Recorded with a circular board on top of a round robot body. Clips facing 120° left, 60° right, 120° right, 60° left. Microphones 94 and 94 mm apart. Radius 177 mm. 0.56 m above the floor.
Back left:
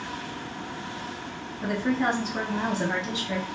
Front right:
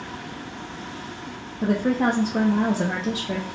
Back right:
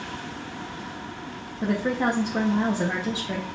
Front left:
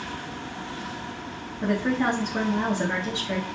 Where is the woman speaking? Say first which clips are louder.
Front right 4 dB, even; 60° right, 1.2 m.